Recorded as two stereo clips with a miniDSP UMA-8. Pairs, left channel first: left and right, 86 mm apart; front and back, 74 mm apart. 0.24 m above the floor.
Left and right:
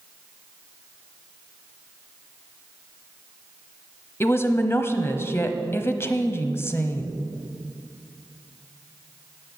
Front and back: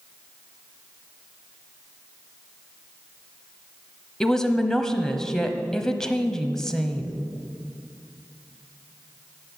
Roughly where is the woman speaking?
Left.